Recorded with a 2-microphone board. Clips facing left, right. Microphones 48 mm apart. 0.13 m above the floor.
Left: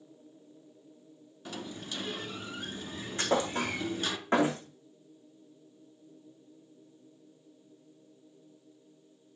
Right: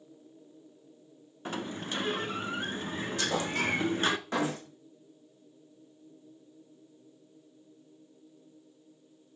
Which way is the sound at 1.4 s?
40° right (ahead or behind).